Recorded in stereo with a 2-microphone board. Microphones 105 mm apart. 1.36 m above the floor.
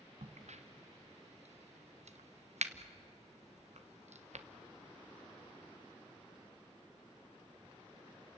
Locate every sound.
0.2 s a crack: 85° right, 1.2 m